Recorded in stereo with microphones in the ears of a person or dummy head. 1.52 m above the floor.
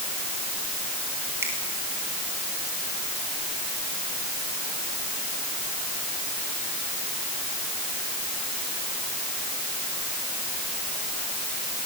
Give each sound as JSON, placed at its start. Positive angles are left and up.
{"t": 1.4, "sound": "a finger snap", "side_deg": -15, "distance_m": 7.0}